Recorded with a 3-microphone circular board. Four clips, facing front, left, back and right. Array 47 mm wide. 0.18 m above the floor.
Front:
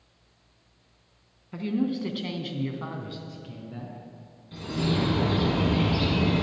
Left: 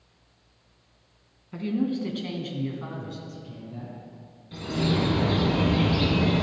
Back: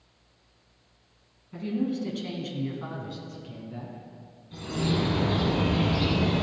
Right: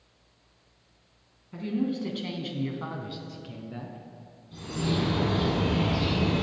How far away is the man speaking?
About 1.5 m.